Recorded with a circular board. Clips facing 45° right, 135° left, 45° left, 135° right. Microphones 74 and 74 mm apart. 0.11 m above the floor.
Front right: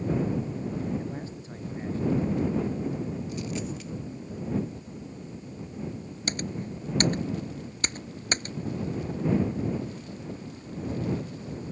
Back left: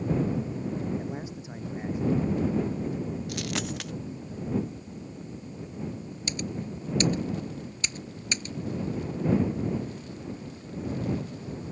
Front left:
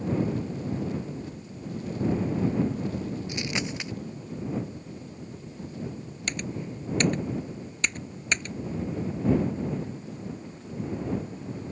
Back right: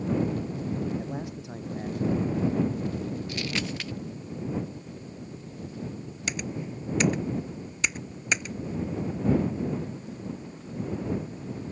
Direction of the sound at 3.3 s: 115° left.